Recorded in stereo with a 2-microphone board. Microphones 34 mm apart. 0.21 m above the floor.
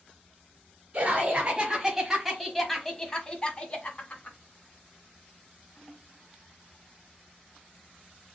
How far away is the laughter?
About 1.4 m.